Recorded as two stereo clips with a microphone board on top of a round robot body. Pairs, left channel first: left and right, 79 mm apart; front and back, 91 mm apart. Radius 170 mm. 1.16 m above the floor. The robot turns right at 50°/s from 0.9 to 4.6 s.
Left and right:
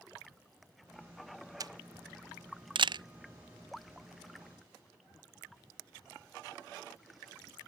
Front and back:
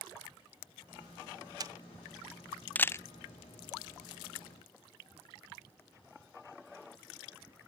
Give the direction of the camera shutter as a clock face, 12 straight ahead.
4 o'clock.